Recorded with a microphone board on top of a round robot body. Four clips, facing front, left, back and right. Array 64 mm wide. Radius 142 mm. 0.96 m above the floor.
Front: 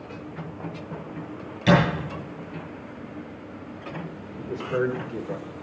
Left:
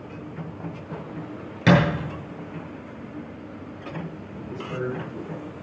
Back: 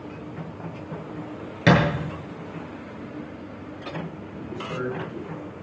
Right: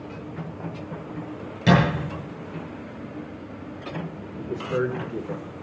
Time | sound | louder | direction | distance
1.7 | a thud | left 1 dB, back 1 dB | 145° left | 8 m
4.4 | a man speaking | right 5 dB, front 5 dB | 50° right | 3 m